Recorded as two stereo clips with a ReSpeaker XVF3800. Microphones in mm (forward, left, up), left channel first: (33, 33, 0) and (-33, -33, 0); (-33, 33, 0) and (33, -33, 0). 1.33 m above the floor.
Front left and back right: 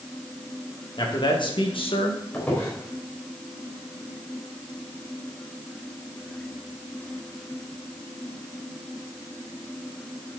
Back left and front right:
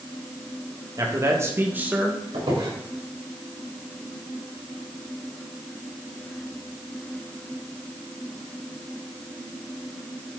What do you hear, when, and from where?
1.0 s a man speaking: 5° left, 2 m; by 2.2 s 40° left, 1.9 m
2.3 s a squeak: 25° right, 4 m